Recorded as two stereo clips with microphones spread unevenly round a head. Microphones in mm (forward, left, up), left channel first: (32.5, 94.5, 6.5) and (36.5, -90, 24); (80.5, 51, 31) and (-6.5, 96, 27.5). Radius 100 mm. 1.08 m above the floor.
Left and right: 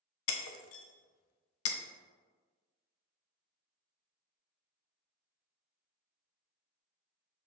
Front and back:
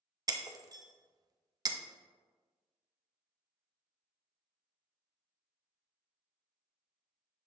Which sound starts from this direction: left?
Breaking glass, at 0.3 s.